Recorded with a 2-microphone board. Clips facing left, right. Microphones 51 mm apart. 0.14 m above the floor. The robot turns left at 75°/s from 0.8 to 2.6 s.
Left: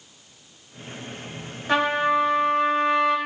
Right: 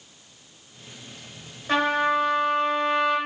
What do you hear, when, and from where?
1.7 s a trumpet: 170° left, 2.5 m; by 3.2 s 100° left, 2.5 m